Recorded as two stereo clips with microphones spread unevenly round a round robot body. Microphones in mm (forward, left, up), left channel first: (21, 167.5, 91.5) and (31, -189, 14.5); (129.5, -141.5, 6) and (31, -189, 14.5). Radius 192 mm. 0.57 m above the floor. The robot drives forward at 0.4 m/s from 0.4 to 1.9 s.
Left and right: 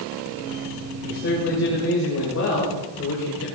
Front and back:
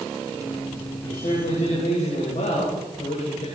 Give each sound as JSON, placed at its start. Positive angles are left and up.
{"t": 1.0, "sound": "a man speaking", "azimuth_deg": 40, "distance_m": 3.5}